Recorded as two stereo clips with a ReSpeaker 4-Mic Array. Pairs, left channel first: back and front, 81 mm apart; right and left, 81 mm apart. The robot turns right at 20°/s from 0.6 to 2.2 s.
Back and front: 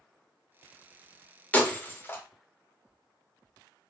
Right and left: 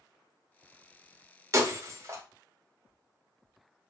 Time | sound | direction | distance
1.5 | breaking glass | 115° left | 0.6 m